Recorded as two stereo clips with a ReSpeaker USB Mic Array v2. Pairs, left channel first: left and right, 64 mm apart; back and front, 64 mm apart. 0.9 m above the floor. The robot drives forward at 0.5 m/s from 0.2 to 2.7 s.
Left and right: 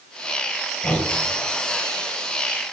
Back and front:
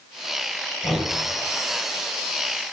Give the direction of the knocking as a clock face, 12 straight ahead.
8 o'clock.